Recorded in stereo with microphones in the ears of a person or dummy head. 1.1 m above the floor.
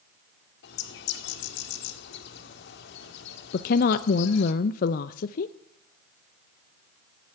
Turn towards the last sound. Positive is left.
turn(degrees=50)  # may be behind; listen again after turning